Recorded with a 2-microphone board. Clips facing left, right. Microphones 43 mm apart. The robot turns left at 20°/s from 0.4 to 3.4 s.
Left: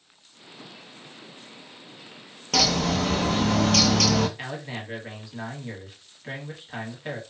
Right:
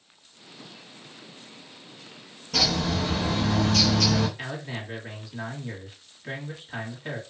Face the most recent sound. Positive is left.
turn(degrees=5)  # may be behind; listen again after turning